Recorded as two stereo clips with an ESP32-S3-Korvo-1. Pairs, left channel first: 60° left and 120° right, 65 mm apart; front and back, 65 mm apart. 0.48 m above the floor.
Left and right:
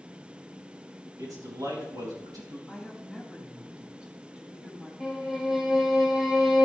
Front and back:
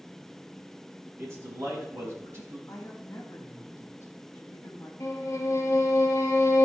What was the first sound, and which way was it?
A man speaking, 135° right.